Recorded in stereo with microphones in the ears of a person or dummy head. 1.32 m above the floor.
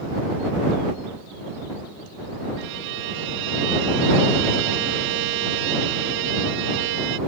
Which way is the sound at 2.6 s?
60° right (ahead or behind).